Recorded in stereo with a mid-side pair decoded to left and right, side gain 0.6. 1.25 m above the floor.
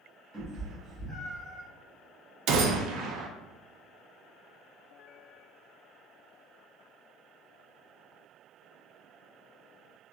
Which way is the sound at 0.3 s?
30° right.